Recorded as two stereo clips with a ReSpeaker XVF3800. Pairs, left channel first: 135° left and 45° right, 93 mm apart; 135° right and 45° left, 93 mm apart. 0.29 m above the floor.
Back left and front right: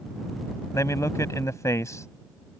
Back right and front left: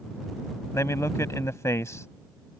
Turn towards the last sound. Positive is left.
turn(degrees=180)